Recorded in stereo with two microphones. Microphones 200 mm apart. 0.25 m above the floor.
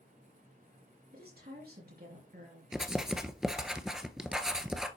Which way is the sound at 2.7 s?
5° right (ahead or behind).